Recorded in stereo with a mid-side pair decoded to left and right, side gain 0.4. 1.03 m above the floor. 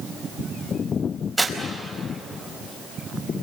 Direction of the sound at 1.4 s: 10° right.